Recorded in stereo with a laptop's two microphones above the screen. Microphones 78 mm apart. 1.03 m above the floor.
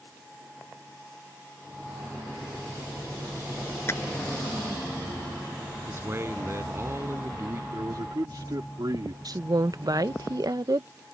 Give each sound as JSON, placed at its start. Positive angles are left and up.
{"t": 3.9, "sound": "tapping", "side_deg": 35}
{"t": 5.9, "sound": "a man speaking", "side_deg": -35}
{"t": 7.7, "sound": "a man speaking", "side_deg": -65}
{"t": 9.2, "sound": "a woman speaking", "side_deg": -55}